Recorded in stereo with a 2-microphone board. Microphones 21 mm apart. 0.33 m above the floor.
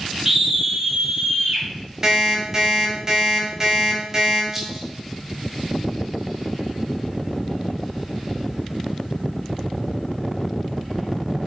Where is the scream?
20° right (ahead or behind), 1.1 m; by 1.7 s 45° right (ahead or behind), 1.8 m.